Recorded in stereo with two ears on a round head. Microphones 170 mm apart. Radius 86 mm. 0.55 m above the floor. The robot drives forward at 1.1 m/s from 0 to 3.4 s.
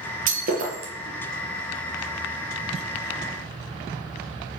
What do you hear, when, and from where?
0.3 s breaking glass: 45° right (ahead or behind), 5.5 m; by 0.9 s 50° right (ahead or behind), 5 m